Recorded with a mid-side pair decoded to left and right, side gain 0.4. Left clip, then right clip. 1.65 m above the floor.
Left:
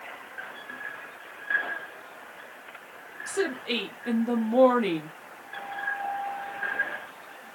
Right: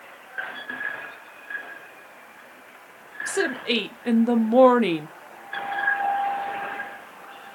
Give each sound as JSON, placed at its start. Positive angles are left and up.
{"t": 3.3, "sound": "a woman speaking", "azimuth_deg": -50, "distance_m": 0.8}